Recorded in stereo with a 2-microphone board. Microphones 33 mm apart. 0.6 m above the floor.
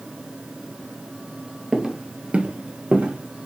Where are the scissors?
No scissors in this recording.